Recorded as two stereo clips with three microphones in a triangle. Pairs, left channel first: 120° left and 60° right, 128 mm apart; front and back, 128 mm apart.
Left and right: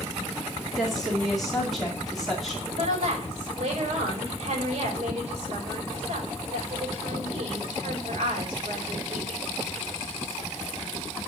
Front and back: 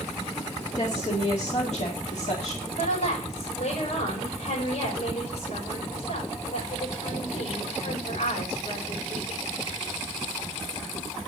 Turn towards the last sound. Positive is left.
turn(degrees=-25)